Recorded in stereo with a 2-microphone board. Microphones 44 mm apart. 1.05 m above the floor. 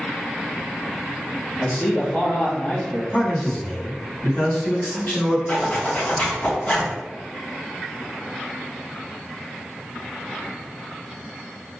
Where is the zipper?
40° left (ahead or behind), 1.5 m.